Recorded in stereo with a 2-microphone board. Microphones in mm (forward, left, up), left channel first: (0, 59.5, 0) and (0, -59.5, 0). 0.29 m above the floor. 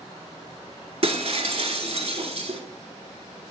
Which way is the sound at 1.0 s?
60° right (ahead or behind).